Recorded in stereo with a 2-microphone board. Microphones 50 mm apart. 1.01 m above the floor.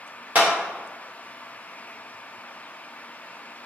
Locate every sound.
0.3 s a clap: 30° right (ahead or behind), 1.2 m